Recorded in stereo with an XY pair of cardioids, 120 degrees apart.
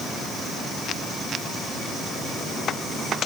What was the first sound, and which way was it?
Only background noise.